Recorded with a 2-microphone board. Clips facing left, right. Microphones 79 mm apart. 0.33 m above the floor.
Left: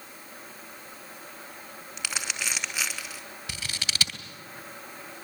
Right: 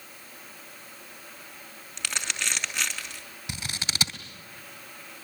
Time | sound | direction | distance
2.0 | crumpling | 10° left (ahead or behind) | 3.5 m
3.5 | scissors | 20° right (ahead or behind) | 3 m